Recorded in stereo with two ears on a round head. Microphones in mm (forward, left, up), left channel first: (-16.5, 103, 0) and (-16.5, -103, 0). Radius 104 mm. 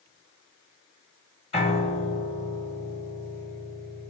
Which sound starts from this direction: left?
A piano, at 1.5 s.